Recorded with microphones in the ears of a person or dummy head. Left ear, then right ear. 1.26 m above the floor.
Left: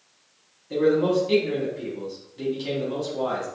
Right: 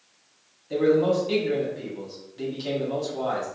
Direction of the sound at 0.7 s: 5° right (ahead or behind).